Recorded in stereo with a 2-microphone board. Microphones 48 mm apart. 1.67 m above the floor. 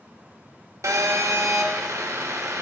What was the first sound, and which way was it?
A phone buzzing, 85° right.